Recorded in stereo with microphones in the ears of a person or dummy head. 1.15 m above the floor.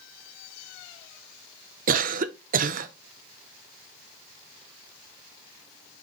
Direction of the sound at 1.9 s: 40° right (ahead or behind).